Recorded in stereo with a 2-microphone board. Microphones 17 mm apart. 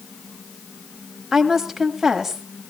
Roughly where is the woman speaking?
Centre.